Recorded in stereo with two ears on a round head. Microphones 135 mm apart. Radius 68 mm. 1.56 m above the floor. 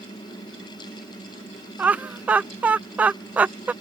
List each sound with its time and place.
1.8 s laughter: 10° right (ahead or behind)